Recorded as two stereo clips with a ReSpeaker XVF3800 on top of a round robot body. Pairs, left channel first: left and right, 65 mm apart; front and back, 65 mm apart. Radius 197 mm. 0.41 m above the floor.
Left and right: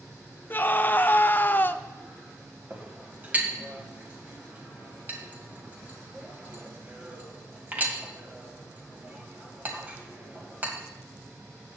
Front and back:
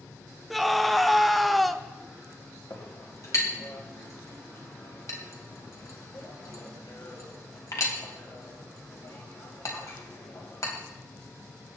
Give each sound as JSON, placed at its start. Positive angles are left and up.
{"t": 0.5, "sound": "a scream", "azimuth_deg": 90, "distance_m": 0.9}
{"t": 2.7, "sound": "a clink", "azimuth_deg": -30, "distance_m": 2.5}